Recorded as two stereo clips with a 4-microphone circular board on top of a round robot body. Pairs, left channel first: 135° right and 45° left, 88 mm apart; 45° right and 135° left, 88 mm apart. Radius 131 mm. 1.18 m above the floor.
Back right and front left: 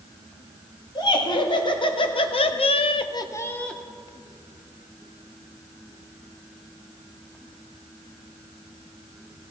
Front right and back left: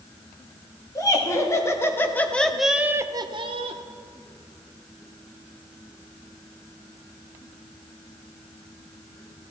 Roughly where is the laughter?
Right.